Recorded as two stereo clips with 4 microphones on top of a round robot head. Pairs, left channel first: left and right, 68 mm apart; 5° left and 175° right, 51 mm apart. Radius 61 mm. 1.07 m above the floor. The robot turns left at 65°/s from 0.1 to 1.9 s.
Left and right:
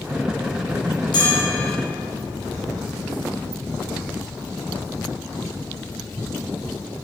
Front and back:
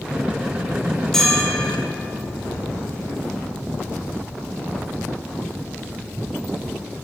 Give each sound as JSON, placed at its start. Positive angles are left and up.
{"t": 1.1, "sound": "a bell", "azimuth_deg": 85, "distance_m": 4.5}